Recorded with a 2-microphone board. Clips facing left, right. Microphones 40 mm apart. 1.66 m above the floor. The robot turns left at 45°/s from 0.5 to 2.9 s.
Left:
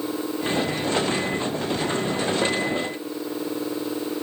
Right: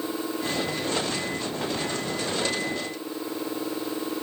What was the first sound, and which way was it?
Only background noise.